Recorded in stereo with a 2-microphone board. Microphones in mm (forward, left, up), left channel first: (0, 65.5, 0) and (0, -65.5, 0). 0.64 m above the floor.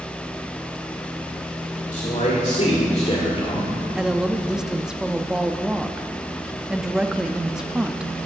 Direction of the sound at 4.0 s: 5° right (ahead or behind).